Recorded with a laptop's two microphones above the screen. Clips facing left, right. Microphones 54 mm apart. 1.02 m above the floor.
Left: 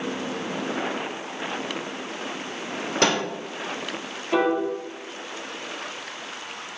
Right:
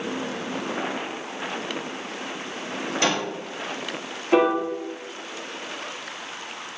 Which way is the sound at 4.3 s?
25° right (ahead or behind).